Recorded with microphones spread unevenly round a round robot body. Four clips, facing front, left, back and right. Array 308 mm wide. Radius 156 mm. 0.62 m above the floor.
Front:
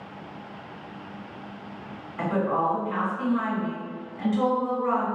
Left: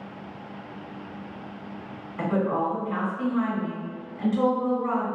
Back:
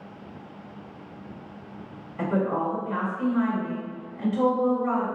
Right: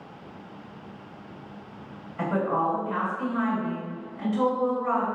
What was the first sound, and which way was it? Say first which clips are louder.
A woman speaking: even, front 1 dB; 40° left.